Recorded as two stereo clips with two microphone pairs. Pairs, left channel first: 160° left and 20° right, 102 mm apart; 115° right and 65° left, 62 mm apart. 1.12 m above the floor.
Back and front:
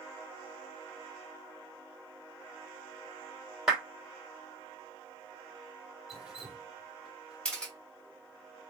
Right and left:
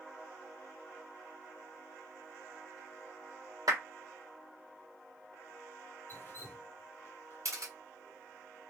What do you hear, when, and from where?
3.7 s a clap: 65° left, 1.3 m
6.1 s dripping: 100° right, 0.9 m
7.5 s a camera shutter: 80° left, 1.2 m